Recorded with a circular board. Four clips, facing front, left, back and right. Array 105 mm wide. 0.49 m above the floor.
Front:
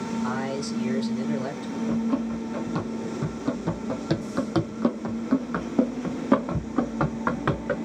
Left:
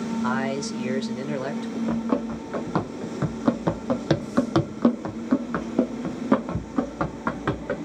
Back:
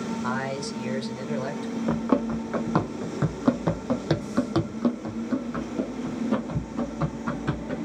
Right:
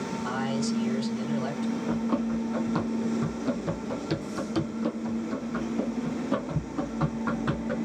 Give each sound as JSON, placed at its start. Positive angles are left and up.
{"t": 0.2, "sound": "a man speaking", "azimuth_deg": 100, "distance_m": 1.7}
{"t": 1.9, "sound": "running footsteps", "azimuth_deg": 160, "distance_m": 1.5}